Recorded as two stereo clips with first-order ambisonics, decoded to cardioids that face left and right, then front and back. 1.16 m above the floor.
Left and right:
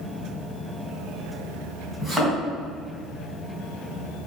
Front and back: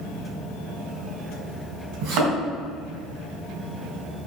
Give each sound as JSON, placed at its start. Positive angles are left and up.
{"t": 2.0, "sound": "a thud", "azimuth_deg": -175, "distance_m": 4.0}